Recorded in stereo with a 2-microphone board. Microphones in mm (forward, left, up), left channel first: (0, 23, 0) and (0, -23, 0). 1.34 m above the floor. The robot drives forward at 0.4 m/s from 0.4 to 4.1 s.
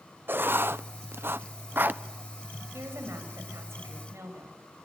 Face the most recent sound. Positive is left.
turn(degrees=-75)  # may be behind; listen again after turning